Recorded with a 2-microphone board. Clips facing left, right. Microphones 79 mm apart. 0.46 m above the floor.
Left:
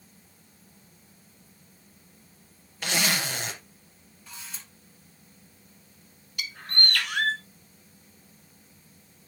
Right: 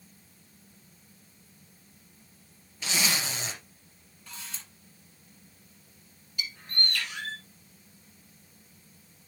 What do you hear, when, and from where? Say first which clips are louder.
2.8 s a zipper: left 3 dB; 65° left (ahead or behind), 2 m
4.3 s a camera shutter: even; 5° left (ahead or behind), 6.5 m
6.4 s a bird: left 4 dB; 75° left (ahead or behind), 1.1 m